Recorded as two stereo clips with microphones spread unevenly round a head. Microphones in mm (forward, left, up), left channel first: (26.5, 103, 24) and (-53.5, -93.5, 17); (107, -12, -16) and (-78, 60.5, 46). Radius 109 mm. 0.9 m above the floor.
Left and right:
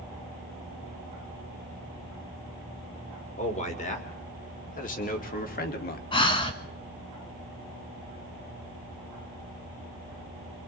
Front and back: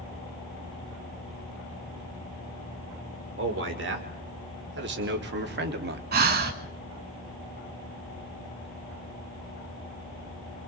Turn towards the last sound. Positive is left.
turn(degrees=135)